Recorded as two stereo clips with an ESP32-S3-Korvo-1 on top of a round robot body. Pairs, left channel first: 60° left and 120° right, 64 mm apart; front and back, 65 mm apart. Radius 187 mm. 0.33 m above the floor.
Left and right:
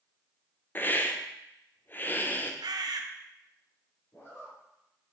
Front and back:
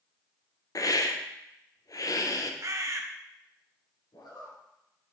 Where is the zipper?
5° left, 2 m.